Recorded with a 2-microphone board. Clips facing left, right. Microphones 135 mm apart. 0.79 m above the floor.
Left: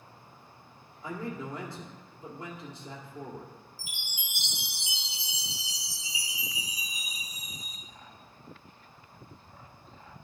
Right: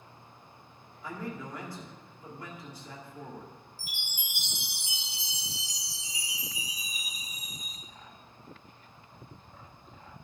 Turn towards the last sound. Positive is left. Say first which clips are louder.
# even
turn(degrees=-50)  # may be behind; listen again after turning